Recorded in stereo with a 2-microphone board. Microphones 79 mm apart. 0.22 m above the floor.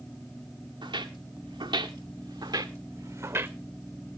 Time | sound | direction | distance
0.8 | footsteps | 85° right | 1.6 m